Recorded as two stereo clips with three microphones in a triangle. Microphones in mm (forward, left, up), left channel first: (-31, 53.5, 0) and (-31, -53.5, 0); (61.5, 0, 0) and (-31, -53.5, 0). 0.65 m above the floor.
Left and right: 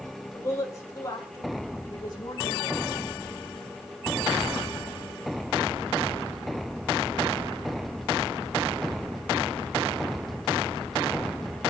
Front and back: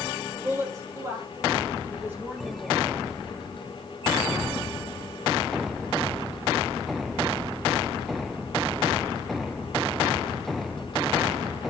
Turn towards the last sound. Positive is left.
turn(degrees=135)